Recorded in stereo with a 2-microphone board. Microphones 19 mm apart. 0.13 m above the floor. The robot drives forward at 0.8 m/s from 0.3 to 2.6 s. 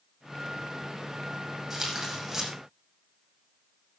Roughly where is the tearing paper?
Centre.